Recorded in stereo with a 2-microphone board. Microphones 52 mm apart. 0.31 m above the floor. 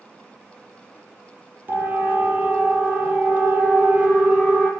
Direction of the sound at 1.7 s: 35° right (ahead or behind).